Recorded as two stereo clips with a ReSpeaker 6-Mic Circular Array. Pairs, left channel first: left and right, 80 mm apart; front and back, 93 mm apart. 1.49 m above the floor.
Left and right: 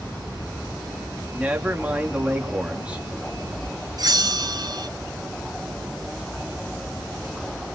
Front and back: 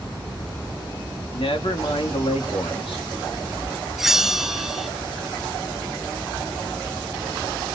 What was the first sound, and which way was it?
A man speaking, 15° right.